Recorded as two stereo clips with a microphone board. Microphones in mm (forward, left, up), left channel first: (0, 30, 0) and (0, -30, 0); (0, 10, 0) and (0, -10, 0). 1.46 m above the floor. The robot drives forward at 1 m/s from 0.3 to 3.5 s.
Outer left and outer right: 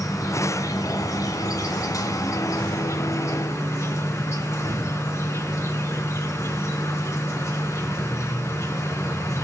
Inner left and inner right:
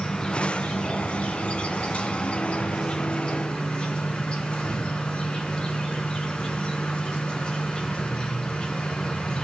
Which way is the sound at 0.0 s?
60° left (ahead or behind).